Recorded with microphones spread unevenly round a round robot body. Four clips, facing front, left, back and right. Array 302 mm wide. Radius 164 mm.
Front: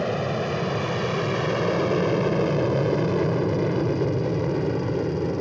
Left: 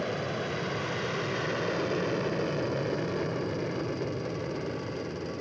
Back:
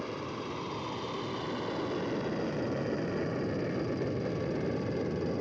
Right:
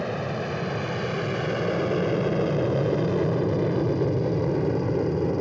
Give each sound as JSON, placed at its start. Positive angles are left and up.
{"t": 0.0, "sound": "an aircraft", "azimuth_deg": -20}